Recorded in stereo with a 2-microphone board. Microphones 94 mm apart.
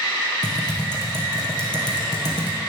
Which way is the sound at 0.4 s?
50° left (ahead or behind).